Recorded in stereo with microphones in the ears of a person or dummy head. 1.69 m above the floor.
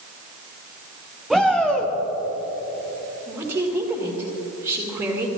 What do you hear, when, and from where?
1.3 s a shout: centre (ahead or behind), 1.4 m
3.3 s a woman speaking: 15° right (ahead or behind), 1.9 m